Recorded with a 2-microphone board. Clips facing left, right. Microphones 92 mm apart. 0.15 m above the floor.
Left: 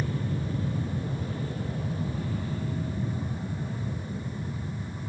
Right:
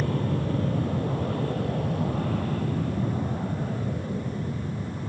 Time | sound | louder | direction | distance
0.0 | an aircraft | right 5 dB | 60° right (ahead or behind) | ?